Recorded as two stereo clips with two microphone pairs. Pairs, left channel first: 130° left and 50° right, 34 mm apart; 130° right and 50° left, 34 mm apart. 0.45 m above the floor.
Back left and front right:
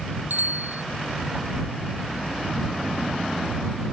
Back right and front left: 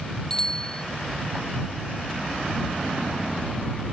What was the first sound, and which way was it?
A bicycle bell, 60° right.